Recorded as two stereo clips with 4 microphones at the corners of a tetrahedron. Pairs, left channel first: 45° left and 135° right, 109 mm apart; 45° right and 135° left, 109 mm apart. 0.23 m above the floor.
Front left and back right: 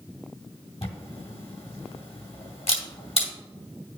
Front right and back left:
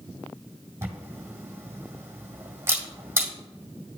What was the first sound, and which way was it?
A camera shutter, 70° left.